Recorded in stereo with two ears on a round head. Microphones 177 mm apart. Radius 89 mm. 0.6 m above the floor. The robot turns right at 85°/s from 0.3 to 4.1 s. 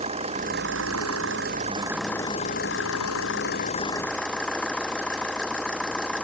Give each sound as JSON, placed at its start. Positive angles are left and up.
{"t": 0.0, "sound": "an engine running", "azimuth_deg": -145}